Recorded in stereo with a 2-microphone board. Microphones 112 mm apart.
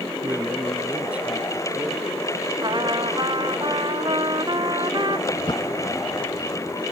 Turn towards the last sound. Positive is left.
turn(degrees=25)  # may be behind; listen again after turning